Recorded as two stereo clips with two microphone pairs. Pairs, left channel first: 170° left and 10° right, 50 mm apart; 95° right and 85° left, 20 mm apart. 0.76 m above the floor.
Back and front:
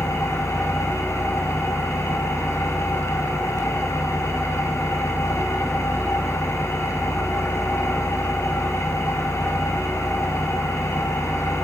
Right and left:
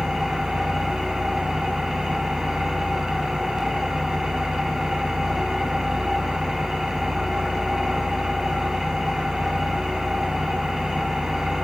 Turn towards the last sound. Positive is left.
turn(degrees=150)